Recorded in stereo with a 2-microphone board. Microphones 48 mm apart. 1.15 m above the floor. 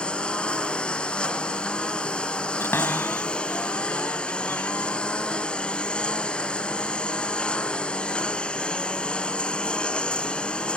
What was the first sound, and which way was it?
A lawn mower, 20° left (ahead or behind).